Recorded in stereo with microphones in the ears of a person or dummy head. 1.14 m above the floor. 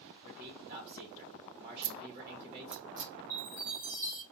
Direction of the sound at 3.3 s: 20° right (ahead or behind).